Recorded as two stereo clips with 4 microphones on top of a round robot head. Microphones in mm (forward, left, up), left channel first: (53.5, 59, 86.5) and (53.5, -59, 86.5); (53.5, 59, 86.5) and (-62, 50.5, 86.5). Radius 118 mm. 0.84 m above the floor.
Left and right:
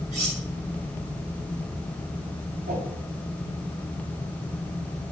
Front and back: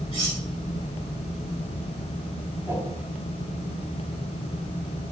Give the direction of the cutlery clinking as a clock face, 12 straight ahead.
4 o'clock.